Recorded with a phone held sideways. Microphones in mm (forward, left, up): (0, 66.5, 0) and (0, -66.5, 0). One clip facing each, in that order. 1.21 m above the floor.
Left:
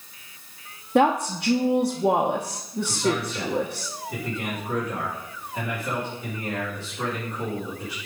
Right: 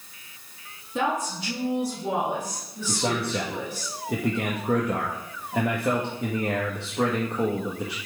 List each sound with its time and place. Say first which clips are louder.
0.9 s a woman speaking: left 7 dB; 65° left (ahead or behind), 0.9 m
2.9 s a man speaking: even; 70° right (ahead or behind), 1.4 m